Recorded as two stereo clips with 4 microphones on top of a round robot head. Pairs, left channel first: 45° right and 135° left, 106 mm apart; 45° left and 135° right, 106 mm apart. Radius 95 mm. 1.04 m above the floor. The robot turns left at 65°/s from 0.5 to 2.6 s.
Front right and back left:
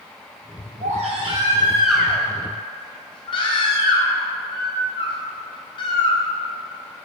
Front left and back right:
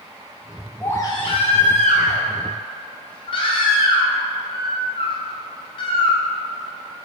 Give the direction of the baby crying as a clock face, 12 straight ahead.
8 o'clock.